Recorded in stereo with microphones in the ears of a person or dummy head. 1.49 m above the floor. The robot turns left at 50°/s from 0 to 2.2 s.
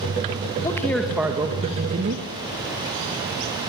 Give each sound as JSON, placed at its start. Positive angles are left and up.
{"t": 0.6, "sound": "a man speaking", "azimuth_deg": 20, "distance_m": 2.0}